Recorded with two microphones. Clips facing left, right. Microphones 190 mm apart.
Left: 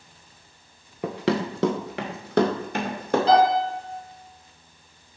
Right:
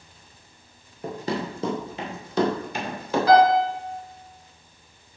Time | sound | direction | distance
1.0 | running footsteps | 80° left | 1.4 m
3.3 | a piano | 25° left (ahead or behind) | 2 m